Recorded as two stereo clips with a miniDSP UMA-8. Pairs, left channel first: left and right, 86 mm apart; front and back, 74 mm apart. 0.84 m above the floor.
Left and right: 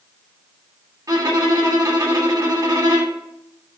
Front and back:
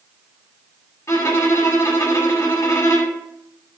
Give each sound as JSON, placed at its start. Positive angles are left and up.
{"t": 1.1, "sound": "a violin", "azimuth_deg": -45, "distance_m": 2.0}